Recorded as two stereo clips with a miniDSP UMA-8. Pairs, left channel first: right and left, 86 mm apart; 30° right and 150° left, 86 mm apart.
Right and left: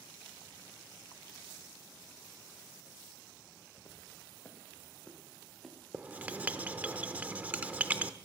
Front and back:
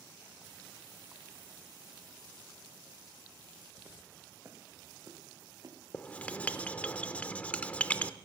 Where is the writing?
30° left, 0.6 m.